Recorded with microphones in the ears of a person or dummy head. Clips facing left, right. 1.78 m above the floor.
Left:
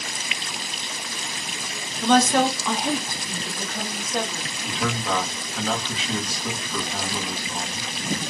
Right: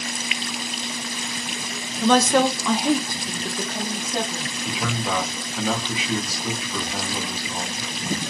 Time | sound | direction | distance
2.0 | a woman speaking | 60° right (ahead or behind) | 0.9 m
4.7 | a man speaking | 10° right (ahead or behind) | 1.4 m